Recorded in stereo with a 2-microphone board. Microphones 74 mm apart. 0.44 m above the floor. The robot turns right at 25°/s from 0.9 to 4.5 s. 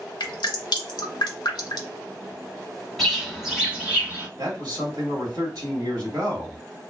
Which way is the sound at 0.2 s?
85° left.